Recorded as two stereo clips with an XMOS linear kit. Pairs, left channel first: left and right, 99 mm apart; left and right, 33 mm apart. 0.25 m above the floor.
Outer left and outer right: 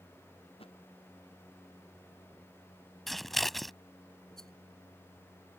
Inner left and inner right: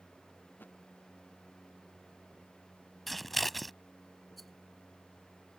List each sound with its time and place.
0.6 s a thud: 70° left (ahead or behind)
3.1 s scissors: centre (ahead or behind)
4.4 s a rattle: 5° left (ahead or behind)